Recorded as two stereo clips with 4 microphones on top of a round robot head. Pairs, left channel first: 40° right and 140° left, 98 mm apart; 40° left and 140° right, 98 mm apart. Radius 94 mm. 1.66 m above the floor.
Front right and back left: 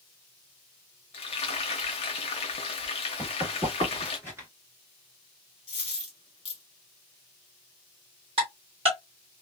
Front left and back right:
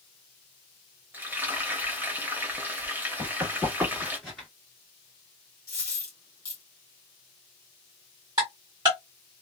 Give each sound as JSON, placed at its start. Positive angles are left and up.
{"t": 1.1, "sound": "frying", "azimuth_deg": -70, "distance_m": 0.6}
{"t": 3.2, "sound": "running footsteps", "azimuth_deg": -155, "distance_m": 1.7}
{"t": 5.7, "sound": "a dropped coin", "azimuth_deg": -15, "distance_m": 1.5}
{"t": 8.4, "sound": "ticking", "azimuth_deg": 170, "distance_m": 1.5}